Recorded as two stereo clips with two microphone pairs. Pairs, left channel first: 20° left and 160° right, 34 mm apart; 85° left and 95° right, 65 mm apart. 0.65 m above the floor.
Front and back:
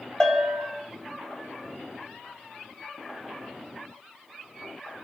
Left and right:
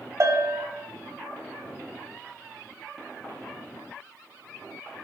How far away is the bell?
About 2.5 m.